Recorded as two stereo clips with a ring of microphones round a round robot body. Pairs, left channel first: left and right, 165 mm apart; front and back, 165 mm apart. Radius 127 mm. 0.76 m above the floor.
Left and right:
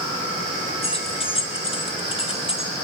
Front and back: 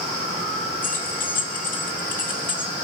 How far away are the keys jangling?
About 1.7 m.